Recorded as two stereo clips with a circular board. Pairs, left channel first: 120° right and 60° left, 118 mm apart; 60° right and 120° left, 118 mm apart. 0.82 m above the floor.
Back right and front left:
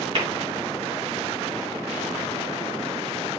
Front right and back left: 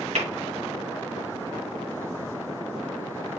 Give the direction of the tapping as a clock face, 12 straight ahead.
8 o'clock.